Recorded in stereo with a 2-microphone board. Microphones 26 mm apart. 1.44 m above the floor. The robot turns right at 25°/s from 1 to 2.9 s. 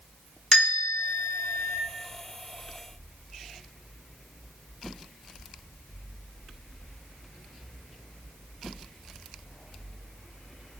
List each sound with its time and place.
0.5 s a bell: 30° left (ahead or behind), 1.2 m; by 1.8 s 35° left (ahead or behind), 1.2 m